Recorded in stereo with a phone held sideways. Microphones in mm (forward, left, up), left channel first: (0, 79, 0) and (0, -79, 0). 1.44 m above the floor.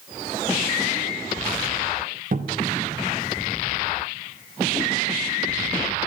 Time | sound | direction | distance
2.3 | a cupboard door | 60° right (ahead or behind) | 0.7 m